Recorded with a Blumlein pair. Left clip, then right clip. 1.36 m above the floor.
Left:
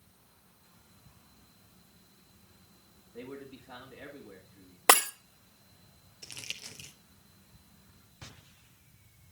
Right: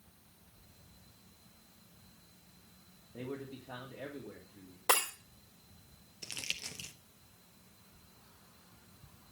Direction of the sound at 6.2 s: 10° right.